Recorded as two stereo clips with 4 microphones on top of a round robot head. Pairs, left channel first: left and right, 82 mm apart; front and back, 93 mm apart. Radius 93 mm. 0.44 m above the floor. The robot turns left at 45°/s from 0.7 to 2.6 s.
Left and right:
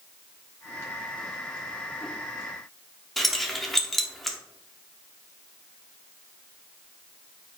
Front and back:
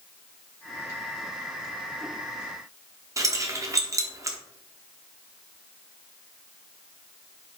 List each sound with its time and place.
3.2 s keys jangling: 175° left, 0.7 m